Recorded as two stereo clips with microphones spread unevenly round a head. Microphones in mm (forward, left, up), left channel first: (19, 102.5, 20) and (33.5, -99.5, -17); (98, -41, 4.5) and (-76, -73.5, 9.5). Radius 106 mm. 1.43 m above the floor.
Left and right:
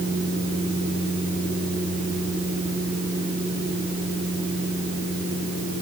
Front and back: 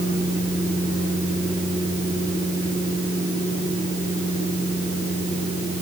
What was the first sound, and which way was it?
Only background noise.